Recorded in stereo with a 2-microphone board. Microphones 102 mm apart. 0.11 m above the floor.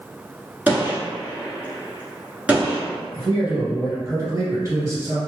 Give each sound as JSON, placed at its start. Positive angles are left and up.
{"t": 0.7, "sound": "a gunshot", "side_deg": -15, "distance_m": 1.5}
{"t": 3.1, "sound": "a man speaking", "side_deg": -30, "distance_m": 1.7}